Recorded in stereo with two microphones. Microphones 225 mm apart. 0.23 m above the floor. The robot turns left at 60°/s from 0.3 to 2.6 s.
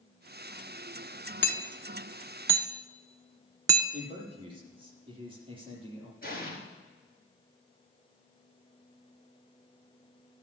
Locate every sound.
1.4 s hammering: 55° left (ahead or behind), 0.8 m; by 3.8 s 15° right (ahead or behind), 0.8 m
3.9 s a man speaking: 25° right (ahead or behind), 5 m
6.2 s an explosion: 40° left (ahead or behind), 4 m